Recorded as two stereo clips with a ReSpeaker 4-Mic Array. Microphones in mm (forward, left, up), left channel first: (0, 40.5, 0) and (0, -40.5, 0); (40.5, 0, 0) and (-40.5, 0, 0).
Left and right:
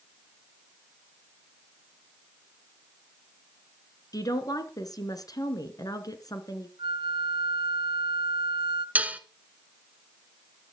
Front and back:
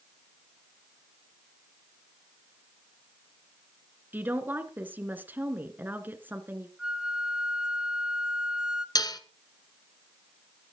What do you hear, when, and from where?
4.1 s a woman speaking: 115° left, 2.5 m
6.8 s a flute: 100° right, 0.7 m
8.9 s dishes clattering: 25° right, 1.3 m